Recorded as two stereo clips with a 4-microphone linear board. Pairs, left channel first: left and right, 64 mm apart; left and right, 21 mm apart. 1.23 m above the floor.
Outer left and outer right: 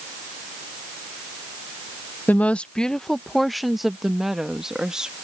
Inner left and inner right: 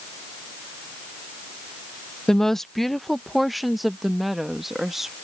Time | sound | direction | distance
2.3 | a woman speaking | 30° left (ahead or behind) | ?